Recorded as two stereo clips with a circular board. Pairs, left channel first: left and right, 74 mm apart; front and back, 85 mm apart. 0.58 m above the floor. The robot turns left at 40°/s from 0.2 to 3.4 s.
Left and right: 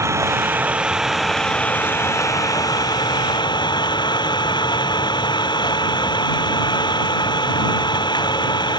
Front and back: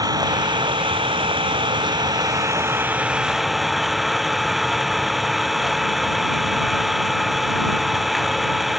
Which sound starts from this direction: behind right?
An engine running, at 0.0 s.